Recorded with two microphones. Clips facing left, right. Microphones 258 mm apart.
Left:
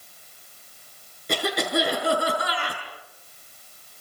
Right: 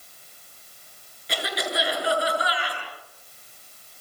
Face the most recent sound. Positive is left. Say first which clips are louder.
# left 5 dB
turn(degrees=50)  # may be behind; listen again after turning